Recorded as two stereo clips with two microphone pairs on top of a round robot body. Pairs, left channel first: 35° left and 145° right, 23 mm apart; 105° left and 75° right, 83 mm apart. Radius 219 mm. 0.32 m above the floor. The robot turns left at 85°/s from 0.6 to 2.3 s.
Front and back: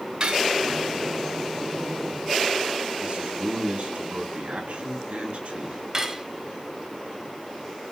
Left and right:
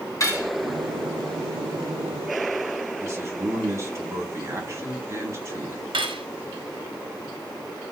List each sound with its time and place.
0.2 s cutlery clinking: 155° left, 3 m
3.0 s a man speaking: 130° right, 4 m
5.9 s cutlery clinking: 80° right, 1.6 m